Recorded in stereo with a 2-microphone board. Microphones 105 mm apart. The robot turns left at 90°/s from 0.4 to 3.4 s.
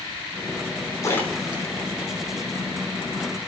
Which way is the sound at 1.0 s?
30° left (ahead or behind).